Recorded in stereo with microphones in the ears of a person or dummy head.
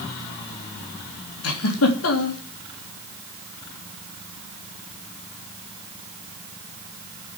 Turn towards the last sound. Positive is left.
turn(degrees=85)